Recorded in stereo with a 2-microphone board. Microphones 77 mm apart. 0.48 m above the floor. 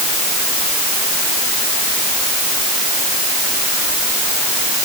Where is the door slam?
I don't hear a door slam.